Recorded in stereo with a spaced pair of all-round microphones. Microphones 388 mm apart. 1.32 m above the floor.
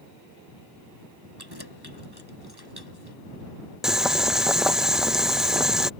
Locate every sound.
1.4 s keys jangling: 80° right
3.8 s boiling: centre (ahead or behind)